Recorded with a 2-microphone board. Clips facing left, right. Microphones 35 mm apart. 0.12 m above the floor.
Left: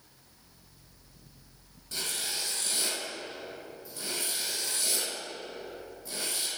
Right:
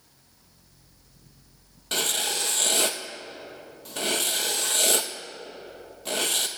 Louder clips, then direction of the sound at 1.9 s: Right 8 dB; 80° right.